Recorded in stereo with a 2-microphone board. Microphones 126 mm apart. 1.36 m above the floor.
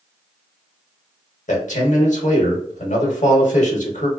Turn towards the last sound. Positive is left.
turn(degrees=75)  # may be behind; listen again after turning